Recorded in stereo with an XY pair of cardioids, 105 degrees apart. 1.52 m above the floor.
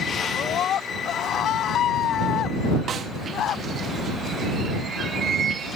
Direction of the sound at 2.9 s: 55° right.